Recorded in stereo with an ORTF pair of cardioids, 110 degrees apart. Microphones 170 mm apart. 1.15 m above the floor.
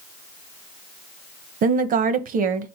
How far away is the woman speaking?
About 0.9 m.